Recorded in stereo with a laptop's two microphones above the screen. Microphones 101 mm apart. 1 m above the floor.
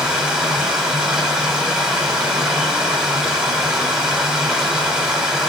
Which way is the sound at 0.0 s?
10° right (ahead or behind).